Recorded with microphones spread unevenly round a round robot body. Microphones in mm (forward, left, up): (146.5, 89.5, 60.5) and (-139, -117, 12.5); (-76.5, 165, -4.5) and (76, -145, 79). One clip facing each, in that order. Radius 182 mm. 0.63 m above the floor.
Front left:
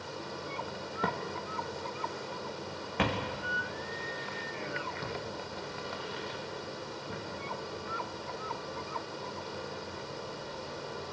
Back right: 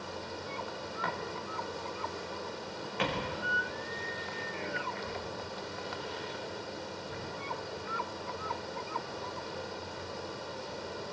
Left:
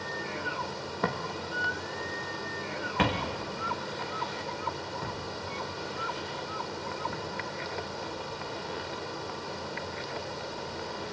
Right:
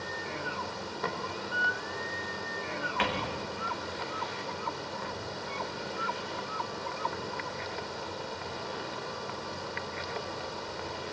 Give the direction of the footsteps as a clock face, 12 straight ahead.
9 o'clock.